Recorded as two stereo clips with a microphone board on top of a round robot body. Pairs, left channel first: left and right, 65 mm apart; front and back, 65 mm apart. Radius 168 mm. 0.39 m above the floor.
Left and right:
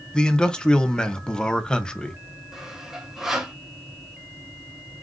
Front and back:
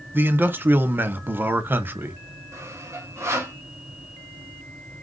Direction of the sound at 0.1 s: 155° left.